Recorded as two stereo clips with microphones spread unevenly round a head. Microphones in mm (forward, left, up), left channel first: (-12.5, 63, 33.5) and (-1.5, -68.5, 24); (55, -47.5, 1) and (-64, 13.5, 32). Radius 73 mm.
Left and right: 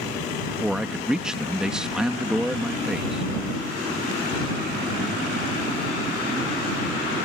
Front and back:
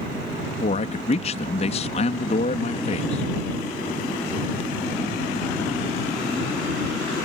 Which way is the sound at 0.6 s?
Straight ahead.